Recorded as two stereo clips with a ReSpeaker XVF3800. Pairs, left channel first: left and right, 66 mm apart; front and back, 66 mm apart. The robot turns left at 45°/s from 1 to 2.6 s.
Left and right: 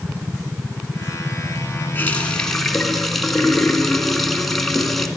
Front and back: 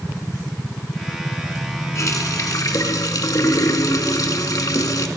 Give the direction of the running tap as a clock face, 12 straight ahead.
11 o'clock.